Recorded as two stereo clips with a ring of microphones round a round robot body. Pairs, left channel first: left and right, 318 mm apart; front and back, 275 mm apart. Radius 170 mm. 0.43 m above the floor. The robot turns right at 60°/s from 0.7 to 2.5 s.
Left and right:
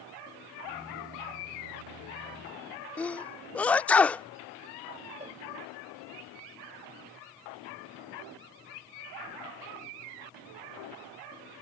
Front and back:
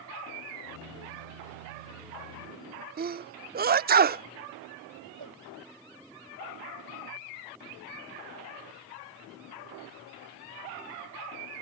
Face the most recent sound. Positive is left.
turn(degrees=-160)